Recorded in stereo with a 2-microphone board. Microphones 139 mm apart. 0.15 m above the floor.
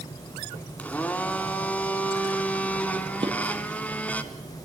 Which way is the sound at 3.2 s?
35° right (ahead or behind).